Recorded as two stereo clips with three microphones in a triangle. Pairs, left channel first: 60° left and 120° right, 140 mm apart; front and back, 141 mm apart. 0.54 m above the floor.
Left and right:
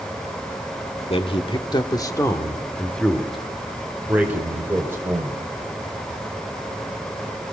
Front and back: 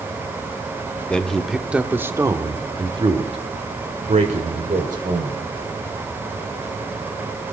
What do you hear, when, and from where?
1.1 s a man speaking: 80° left, 1.6 m; by 5.4 s 170° left, 3 m